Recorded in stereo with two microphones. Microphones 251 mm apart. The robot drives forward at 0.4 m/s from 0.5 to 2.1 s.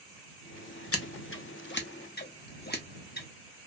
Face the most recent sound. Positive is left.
turn(degrees=40)  # may be behind; listen again after turning